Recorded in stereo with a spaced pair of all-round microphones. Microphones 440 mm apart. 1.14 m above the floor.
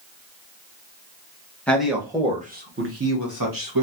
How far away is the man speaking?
About 1.2 m.